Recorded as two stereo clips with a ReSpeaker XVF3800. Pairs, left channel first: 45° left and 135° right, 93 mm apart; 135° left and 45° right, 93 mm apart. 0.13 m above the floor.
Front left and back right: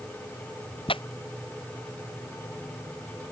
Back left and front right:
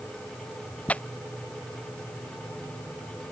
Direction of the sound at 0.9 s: 60° left.